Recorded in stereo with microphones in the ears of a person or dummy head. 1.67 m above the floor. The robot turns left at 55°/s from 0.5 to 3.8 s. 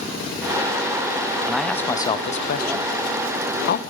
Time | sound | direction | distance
1.4 | a man speaking | 5° right (ahead or behind) | 0.7 m